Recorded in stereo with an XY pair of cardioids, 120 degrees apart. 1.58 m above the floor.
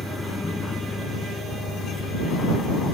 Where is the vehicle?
20° left; by 2.9 s 50° left.